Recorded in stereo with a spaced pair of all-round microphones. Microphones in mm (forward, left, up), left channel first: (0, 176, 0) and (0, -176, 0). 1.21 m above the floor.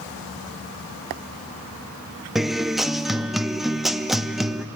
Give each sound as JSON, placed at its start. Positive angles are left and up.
{"t": 2.4, "sound": "a guitar", "side_deg": 0, "distance_m": 0.6}